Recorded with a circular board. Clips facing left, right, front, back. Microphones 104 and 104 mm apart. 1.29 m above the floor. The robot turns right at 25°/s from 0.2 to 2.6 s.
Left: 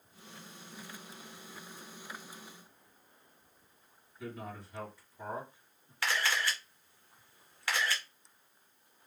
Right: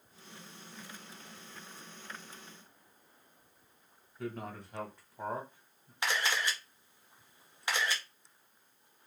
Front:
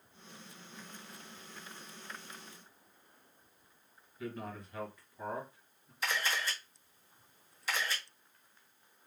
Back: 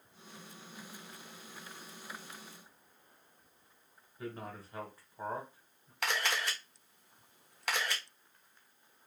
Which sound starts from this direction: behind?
A camera shutter, at 6.0 s.